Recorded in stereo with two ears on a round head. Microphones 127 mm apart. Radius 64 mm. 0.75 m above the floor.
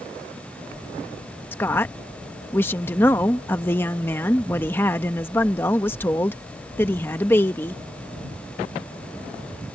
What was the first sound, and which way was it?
A woman speaking, 15° left (ahead or behind).